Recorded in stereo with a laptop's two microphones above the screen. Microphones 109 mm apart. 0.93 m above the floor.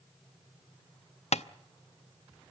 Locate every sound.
1.3 s tapping: 80° left, 0.6 m